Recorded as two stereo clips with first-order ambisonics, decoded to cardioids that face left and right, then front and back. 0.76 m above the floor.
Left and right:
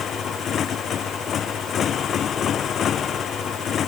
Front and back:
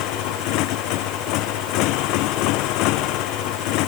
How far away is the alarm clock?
No alarm clock in this recording.